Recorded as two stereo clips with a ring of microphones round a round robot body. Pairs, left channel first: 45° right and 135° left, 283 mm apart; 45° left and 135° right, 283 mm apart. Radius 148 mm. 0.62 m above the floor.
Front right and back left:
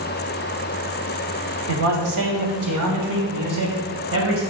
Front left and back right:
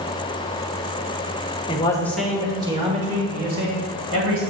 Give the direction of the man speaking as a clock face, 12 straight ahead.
8 o'clock.